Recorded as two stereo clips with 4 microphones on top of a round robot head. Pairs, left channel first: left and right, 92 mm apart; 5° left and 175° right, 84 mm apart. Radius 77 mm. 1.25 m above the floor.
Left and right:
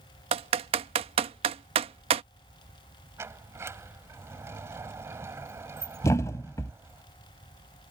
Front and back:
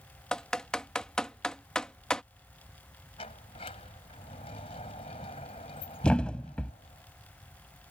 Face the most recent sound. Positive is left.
turn(degrees=70)